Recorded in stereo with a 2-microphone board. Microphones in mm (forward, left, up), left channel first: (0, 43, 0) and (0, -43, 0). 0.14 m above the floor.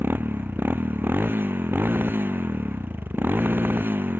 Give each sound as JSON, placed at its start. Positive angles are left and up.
{"t": 0.0, "sound": "a motorcycle", "side_deg": -25}